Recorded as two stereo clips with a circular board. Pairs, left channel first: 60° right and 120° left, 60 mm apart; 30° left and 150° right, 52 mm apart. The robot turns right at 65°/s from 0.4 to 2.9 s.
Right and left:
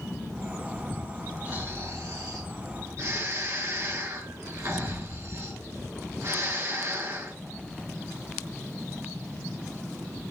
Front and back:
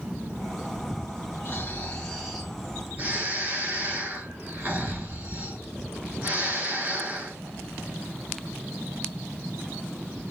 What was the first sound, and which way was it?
Snoring, 60° left.